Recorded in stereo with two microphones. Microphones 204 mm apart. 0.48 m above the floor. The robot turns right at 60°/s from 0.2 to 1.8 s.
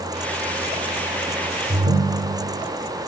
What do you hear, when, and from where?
1.7 s a ringtone: 35° right (ahead or behind), 0.9 m